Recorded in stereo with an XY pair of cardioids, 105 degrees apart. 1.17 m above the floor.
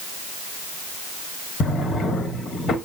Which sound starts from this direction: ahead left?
A drawer, at 1.6 s.